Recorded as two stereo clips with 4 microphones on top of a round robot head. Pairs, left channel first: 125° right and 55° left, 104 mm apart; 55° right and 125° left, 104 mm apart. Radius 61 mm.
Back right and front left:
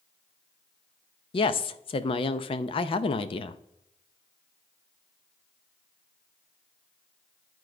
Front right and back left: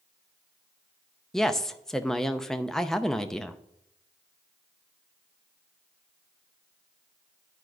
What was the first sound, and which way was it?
A woman speaking, 140° right.